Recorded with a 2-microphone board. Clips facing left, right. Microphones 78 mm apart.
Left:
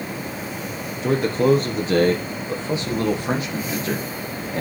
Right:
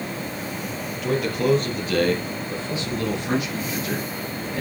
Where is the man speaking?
30° left (ahead or behind), 2.5 m; by 4.6 s 35° left (ahead or behind), 5 m.